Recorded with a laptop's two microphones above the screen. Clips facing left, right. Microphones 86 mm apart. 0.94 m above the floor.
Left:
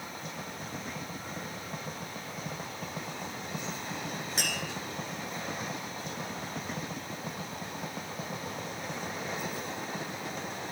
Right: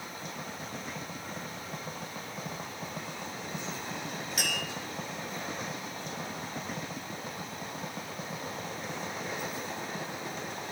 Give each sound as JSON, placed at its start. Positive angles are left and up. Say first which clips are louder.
{"t": 4.4, "sound": "tapping", "louder": "right 1 dB", "side_deg": 35, "distance_m": 3.5}